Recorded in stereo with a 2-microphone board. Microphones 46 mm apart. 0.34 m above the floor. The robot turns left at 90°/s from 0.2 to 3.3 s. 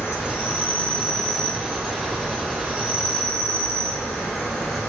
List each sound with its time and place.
0.0 s an insect: 95° left, 2.0 m; by 4.9 s 175° left, 2.0 m